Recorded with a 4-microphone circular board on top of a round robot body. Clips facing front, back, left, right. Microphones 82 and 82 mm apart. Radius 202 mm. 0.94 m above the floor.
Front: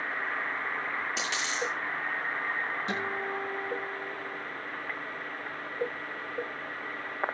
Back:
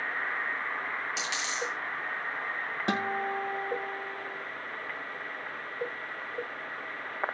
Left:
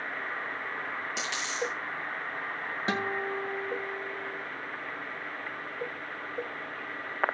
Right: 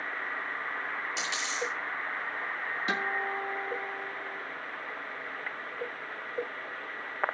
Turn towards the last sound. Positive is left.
turn(degrees=150)